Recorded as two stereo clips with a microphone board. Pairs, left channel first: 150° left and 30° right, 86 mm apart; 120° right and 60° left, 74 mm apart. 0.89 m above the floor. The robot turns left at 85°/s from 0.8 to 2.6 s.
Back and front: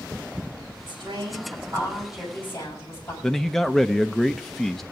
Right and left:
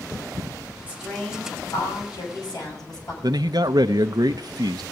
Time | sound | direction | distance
0.9 | a woman speaking | 5° right | 6.5 m
3.2 | a man speaking | 65° left | 0.5 m